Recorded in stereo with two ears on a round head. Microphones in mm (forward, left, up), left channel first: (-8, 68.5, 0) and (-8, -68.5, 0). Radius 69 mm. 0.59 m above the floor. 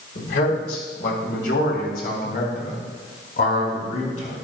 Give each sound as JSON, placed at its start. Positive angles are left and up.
{"t": 0.1, "sound": "a man speaking", "side_deg": 70, "distance_m": 4.0}